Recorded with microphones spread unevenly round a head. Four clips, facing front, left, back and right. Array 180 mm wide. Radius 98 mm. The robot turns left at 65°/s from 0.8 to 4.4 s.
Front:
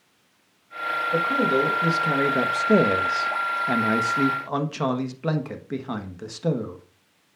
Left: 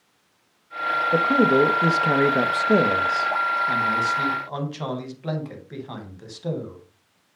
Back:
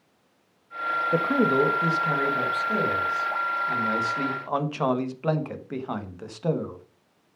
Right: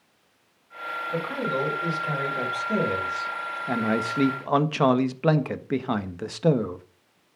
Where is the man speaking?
145° left, 1.5 m; by 6.8 s 70° right, 1.5 m.